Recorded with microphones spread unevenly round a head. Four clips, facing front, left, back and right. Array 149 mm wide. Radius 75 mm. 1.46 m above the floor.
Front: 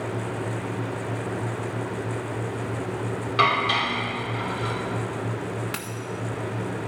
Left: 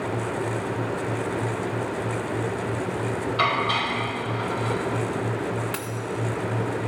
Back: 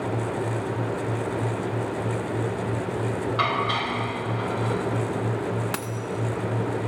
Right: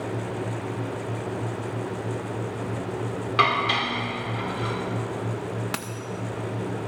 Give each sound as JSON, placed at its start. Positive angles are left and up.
{"t": 3.4, "sound": "dishes clattering", "azimuth_deg": -50, "distance_m": 3.5}
{"t": 5.7, "sound": "a dropped coin", "azimuth_deg": -135, "distance_m": 0.9}